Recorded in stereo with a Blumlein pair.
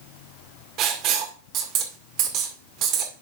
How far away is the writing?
About 2.0 m.